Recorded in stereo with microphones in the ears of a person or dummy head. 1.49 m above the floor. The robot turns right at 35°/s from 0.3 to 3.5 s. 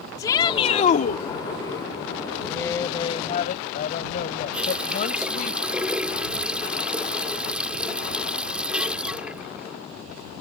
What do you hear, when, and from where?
0.2 s a shout: 20° left; by 1.2 s 55° left
2.5 s a woman speaking: 10° left; by 5.5 s 45° left
4.5 s a running tap: 5° right (ahead or behind)